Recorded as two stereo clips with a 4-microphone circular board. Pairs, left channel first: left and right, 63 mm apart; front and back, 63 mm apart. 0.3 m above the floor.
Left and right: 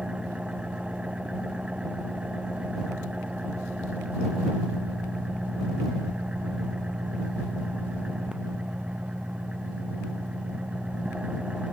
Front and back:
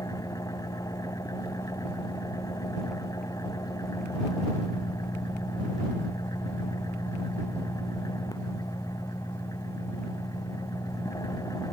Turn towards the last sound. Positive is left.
turn(degrees=-15)